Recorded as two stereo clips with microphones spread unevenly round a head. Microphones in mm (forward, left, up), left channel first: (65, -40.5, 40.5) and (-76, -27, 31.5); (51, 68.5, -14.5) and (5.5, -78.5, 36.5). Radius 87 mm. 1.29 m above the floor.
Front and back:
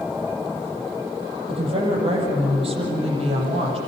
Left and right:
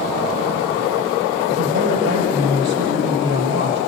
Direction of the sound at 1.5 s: 135° right.